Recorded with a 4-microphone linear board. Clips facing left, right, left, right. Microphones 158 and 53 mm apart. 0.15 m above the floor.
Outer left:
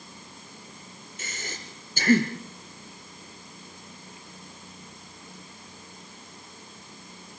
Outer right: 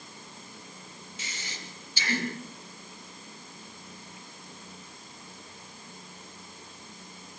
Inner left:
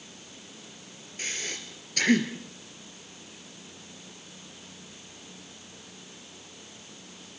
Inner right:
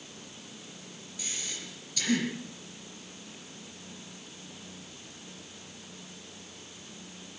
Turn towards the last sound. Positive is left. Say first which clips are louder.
# outer left 5 dB, inner left 5 dB
turn(degrees=50)  # may be behind; listen again after turning